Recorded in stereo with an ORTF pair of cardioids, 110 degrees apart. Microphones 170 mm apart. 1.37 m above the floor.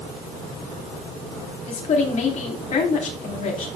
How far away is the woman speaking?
About 3.5 m.